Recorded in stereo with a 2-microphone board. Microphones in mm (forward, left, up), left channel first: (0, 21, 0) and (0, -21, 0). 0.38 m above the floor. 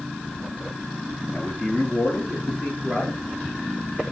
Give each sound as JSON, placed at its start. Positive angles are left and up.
{"t": 1.3, "sound": "a man speaking", "side_deg": 30, "distance_m": 5.5}